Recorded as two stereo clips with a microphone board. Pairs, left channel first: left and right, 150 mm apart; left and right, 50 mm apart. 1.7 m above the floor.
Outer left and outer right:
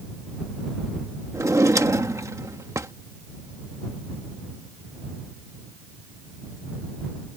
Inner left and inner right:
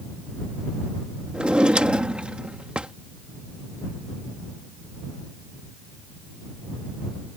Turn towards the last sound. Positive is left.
turn(degrees=-20)  # may be behind; listen again after turning